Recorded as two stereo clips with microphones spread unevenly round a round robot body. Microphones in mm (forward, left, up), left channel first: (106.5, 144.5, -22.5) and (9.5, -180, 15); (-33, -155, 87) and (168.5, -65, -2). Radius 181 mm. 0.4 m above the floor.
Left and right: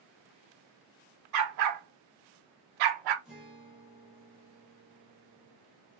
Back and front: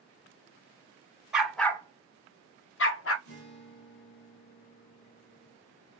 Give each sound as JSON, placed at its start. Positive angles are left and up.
{"t": 1.3, "sound": "a dog barking", "azimuth_deg": -65, "distance_m": 0.8}
{"t": 3.2, "sound": "a guitar", "azimuth_deg": 155, "distance_m": 0.5}